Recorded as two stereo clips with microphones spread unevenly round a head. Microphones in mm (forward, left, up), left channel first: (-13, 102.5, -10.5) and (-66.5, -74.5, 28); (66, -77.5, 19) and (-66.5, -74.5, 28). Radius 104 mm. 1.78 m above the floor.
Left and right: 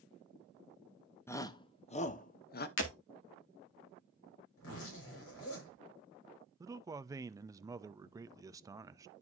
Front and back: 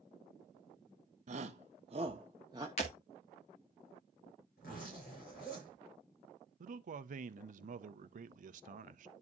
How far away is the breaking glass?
About 1.8 m.